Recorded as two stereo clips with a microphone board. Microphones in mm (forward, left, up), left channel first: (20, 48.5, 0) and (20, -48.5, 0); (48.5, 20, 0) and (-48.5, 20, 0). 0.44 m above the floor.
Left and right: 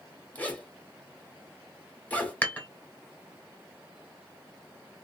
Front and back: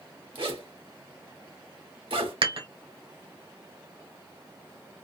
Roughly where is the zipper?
Behind.